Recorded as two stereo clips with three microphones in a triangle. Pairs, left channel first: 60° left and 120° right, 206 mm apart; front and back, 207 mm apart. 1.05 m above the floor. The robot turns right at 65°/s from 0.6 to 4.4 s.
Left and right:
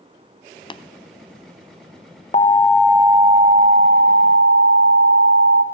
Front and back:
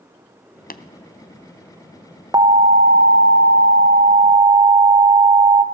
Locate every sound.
0.7 s tapping: straight ahead, 0.6 m; by 0.8 s 10° left, 0.6 m
2.3 s an alarm: 110° left, 0.8 m; by 5.6 s 115° right, 0.8 m